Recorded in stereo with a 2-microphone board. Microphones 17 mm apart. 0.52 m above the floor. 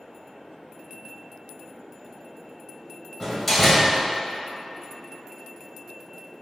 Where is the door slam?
10° left (ahead or behind), 1.9 m.